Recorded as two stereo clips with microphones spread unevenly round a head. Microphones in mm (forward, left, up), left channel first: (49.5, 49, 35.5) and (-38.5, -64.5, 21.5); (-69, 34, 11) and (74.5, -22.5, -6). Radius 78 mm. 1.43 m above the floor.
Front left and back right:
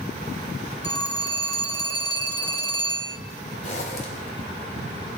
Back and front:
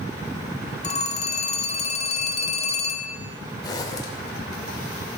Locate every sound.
0.8 s a phone ringing: 115° left, 2 m
3.6 s a zipper: 95° left, 2.5 m